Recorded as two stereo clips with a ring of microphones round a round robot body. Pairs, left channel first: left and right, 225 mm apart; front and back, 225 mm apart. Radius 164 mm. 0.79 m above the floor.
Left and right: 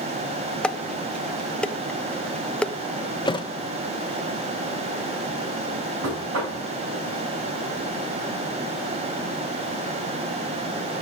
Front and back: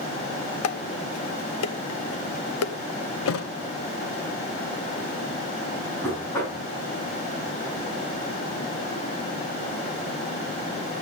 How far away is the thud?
About 1.3 m.